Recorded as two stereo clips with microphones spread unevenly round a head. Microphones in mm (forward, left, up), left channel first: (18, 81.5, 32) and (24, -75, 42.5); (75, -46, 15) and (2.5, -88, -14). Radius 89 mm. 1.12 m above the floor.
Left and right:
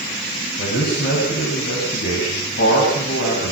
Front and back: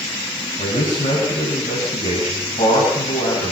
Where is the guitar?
I don't hear a guitar.